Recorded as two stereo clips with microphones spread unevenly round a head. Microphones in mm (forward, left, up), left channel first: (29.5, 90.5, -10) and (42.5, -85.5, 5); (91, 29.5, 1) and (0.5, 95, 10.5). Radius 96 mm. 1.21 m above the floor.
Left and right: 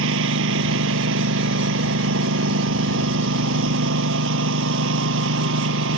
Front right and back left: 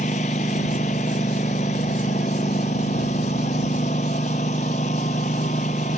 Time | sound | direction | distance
0.0 | a lawn mower | 90° right | ?